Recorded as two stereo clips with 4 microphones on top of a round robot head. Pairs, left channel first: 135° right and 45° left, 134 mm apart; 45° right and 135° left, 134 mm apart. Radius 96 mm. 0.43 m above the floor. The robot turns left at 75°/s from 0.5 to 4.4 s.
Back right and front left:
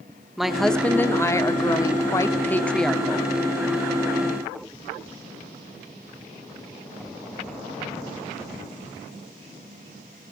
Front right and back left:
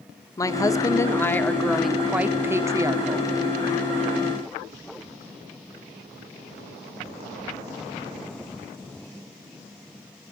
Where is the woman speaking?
40° right, 0.8 m; by 3.3 s 115° left, 0.8 m.